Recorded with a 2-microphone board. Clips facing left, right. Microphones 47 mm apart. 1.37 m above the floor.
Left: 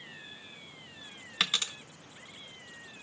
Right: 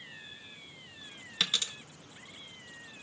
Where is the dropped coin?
30° left (ahead or behind), 0.8 m.